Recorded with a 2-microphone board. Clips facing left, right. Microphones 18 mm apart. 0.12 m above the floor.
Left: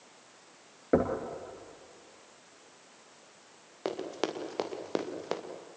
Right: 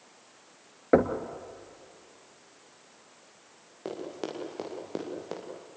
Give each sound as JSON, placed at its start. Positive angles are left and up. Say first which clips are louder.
{"t": 0.9, "sound": "knocking", "louder": "right 4 dB", "side_deg": -30, "distance_m": 1.7}
{"t": 3.9, "sound": "running footsteps", "louder": "left 3 dB", "side_deg": 30, "distance_m": 4.5}